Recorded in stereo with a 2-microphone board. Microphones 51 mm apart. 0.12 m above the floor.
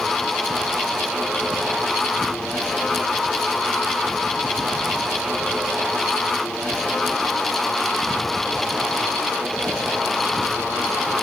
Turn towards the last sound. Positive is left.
No sound to turn to.